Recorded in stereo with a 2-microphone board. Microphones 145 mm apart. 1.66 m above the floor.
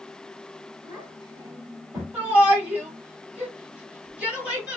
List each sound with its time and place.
0.8 s a child speaking: 25° right (ahead or behind), 3 m; by 2.0 s 15° right (ahead or behind), 2.5 m
2.1 s a shout: 10° right (ahead or behind), 3.5 m